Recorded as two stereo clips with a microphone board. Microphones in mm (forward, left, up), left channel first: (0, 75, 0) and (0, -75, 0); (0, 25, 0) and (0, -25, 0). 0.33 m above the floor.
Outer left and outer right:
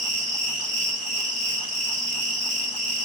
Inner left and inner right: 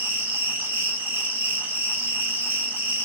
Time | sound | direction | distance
0.0 | an insect | 55° right (ahead or behind) | 2 m